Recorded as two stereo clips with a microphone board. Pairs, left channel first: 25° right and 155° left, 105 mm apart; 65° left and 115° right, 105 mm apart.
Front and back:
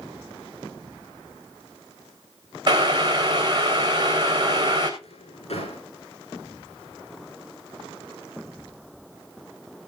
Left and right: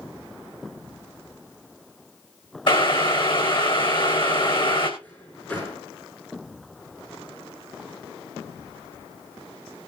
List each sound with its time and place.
2.7 s boiling: 110° left, 4 m
5.0 s a drawer: 5° right, 7.5 m